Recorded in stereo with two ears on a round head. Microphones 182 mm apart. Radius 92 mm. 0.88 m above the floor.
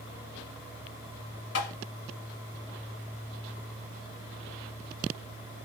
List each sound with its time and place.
1.6 s tapping: 60° left (ahead or behind), 1.6 m